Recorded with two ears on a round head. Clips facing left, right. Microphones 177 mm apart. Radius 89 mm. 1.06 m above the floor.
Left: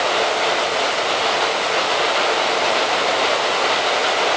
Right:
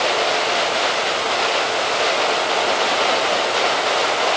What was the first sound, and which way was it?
Only background noise.